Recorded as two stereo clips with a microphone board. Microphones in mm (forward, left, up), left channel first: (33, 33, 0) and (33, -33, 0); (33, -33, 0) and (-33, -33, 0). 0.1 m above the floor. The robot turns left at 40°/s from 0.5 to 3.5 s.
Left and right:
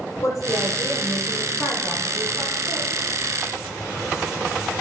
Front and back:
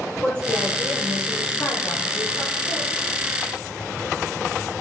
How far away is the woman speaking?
About 3.5 m.